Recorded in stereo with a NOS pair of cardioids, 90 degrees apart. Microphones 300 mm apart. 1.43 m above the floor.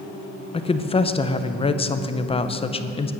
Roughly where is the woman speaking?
Ahead.